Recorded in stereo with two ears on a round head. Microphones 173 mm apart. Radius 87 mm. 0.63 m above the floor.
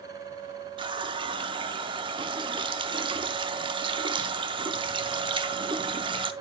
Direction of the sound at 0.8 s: 25° right (ahead or behind).